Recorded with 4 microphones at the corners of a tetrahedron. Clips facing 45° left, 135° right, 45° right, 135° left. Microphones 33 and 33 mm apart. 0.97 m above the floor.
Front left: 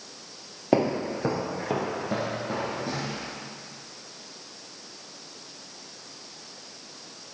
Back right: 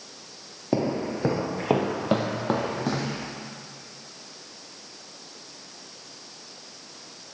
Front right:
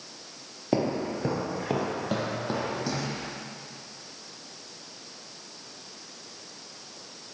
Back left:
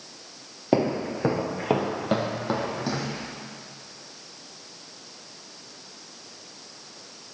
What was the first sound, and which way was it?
Footsteps, 80° left.